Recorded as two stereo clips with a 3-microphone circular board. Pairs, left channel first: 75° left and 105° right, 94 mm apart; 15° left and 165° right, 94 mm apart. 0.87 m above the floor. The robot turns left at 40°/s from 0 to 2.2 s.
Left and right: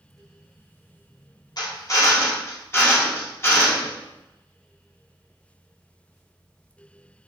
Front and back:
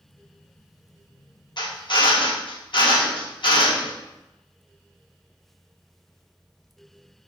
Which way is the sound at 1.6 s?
40° left.